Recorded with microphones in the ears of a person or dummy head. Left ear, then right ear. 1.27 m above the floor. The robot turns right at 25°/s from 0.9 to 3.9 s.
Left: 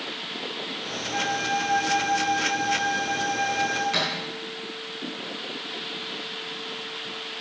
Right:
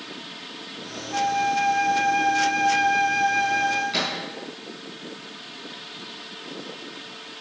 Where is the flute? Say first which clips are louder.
Right 4 dB; straight behind, 1.6 m; by 3.8 s 115° right, 1.6 m.